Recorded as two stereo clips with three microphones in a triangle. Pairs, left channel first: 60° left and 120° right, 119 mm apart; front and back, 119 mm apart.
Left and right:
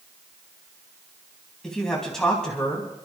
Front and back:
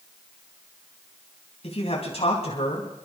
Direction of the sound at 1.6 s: 25° right.